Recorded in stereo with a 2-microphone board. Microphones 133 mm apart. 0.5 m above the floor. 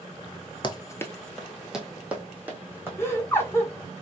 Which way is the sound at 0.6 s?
35° left (ahead or behind).